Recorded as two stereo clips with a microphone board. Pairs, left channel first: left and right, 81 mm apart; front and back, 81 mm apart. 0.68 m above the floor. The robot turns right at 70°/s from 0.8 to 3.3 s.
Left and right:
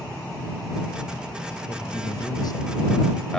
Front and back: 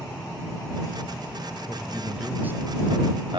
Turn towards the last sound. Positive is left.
turn(degrees=175)